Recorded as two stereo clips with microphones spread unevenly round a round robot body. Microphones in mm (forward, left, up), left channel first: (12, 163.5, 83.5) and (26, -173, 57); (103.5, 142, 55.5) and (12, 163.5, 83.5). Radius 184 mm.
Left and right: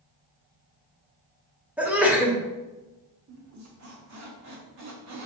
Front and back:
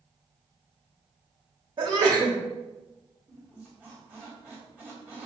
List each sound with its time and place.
1.8 s a sneeze: 165° right, 0.8 m
3.3 s a squeak: 105° right, 0.9 m